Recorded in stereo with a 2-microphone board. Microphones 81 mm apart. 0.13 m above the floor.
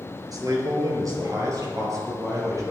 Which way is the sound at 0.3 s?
45° right (ahead or behind).